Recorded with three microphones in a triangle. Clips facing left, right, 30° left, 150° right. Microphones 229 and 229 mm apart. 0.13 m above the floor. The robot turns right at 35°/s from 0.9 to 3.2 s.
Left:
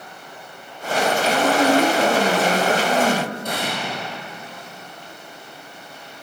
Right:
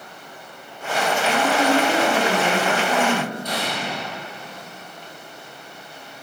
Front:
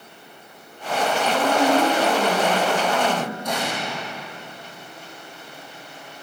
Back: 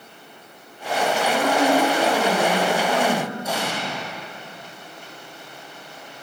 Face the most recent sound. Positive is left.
turn(degrees=130)